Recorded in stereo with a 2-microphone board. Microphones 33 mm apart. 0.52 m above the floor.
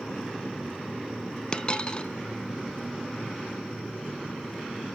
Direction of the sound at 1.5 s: 30° left (ahead or behind).